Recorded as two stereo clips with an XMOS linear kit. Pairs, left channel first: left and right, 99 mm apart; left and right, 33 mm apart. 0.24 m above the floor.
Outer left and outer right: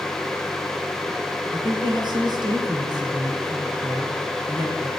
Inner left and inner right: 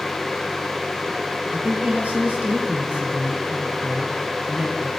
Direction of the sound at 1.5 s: 50° right (ahead or behind).